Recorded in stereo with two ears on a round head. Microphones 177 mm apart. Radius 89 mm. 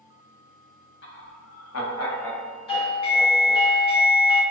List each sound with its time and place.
1.0 s laughter: 65° left (ahead or behind), 0.8 m; by 3.7 s 45° left (ahead or behind), 1.6 m
2.7 s a doorbell: 30° left (ahead or behind), 1.6 m